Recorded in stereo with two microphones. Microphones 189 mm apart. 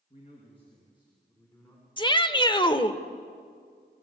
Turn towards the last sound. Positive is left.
turn(degrees=25)  # may be behind; listen again after turning